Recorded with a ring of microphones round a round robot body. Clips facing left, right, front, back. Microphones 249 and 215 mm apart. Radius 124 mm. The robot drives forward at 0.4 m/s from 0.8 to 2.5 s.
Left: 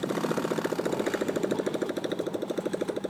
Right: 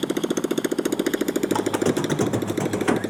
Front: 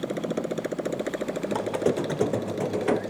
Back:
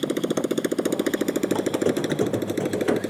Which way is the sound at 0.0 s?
130° right.